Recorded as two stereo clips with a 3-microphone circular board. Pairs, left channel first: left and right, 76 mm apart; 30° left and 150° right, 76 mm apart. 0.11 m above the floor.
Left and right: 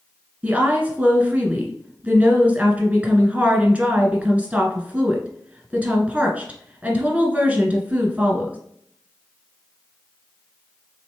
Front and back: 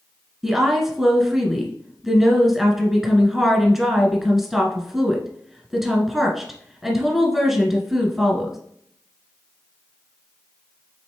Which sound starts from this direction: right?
A woman speaking, at 0.4 s.